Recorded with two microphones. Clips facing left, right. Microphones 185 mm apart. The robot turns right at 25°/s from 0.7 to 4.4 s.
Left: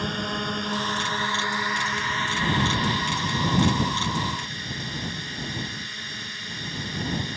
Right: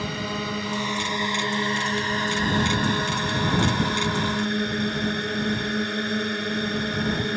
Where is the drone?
175° right; by 7.4 s 85° right.